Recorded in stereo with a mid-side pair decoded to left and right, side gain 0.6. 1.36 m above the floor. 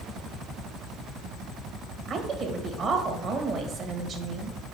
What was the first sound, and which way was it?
A woman speaking, 45° right.